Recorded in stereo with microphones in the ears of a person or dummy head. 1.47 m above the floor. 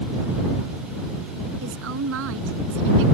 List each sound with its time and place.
1.6 s a woman speaking: 65° right (ahead or behind)